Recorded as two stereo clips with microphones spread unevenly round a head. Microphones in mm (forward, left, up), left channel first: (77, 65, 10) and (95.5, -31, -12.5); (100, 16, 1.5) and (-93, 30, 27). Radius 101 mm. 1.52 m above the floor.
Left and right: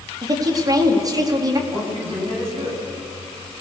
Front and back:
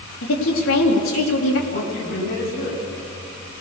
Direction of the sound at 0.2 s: 30° right.